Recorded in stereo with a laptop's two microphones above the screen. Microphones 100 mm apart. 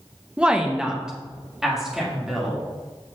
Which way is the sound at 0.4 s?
10° right (ahead or behind).